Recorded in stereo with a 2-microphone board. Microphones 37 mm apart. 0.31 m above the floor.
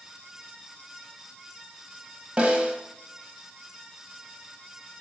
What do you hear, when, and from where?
2.4 s a snare drum: 25° right (ahead or behind), 0.7 m